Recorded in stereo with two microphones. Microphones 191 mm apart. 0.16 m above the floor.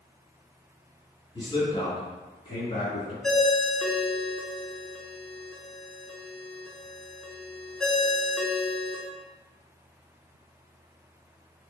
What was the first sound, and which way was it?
A man speaking, 25° left (ahead or behind).